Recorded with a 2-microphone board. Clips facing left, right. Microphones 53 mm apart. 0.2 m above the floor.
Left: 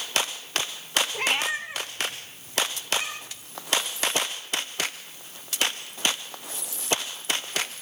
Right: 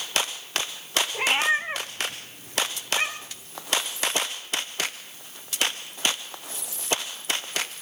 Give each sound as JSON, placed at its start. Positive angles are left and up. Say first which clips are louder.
{"t": 1.1, "sound": "a cat meowing", "louder": "right 8 dB", "side_deg": -5, "distance_m": 0.8}